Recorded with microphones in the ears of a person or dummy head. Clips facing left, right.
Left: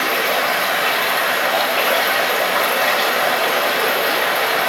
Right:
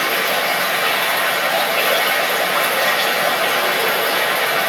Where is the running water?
Centre (ahead or behind), 5 m.